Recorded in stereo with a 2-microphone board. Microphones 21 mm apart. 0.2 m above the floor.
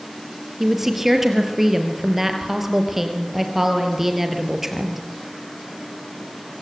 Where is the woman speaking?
15° right (ahead or behind), 4 m.